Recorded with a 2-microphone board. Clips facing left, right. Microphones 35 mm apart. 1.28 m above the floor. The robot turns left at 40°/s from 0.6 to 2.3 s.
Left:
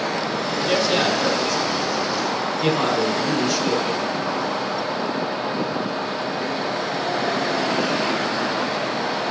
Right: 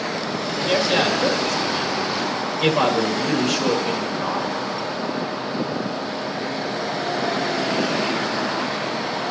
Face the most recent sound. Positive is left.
turn(degrees=-100)